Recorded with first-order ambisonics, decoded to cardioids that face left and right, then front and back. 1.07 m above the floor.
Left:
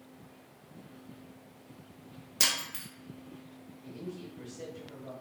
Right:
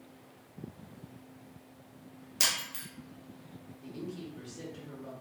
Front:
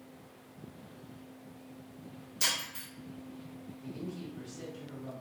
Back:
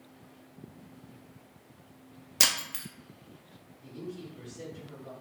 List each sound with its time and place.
2.4 s breaking glass: 175° left, 0.6 m
3.8 s a woman speaking: 85° right, 1.6 m